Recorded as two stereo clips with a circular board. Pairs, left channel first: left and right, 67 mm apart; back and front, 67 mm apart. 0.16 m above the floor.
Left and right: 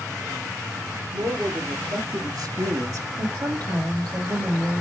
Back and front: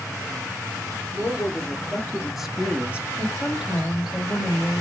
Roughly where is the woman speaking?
Right.